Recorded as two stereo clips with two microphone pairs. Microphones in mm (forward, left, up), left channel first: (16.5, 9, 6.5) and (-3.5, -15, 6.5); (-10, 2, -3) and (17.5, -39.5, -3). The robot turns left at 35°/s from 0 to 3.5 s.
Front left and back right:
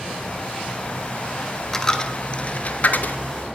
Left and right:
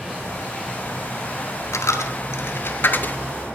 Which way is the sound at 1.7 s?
120° left.